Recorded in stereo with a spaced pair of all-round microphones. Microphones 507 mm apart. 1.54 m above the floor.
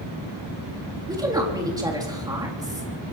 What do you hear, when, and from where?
1.1 s a woman speaking: 5° right (ahead or behind), 3.5 m